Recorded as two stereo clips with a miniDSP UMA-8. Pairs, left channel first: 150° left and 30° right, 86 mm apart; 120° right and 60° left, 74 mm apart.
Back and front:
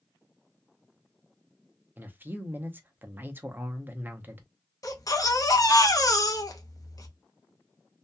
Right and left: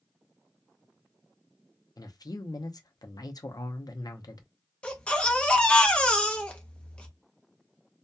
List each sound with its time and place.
2.0 s a man speaking: 95° right, 0.6 m
4.8 s a baby crying: 170° left, 0.6 m